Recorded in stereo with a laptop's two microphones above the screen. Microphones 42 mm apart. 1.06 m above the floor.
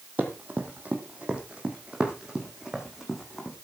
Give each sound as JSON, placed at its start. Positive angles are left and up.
{"t": 0.2, "sound": "running footsteps", "side_deg": -40, "distance_m": 1.9}